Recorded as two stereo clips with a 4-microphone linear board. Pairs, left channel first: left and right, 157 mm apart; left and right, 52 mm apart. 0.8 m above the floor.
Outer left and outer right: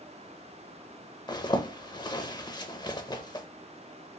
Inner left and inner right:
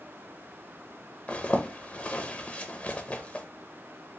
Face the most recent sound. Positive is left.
turn(degrees=25)  # may be behind; listen again after turning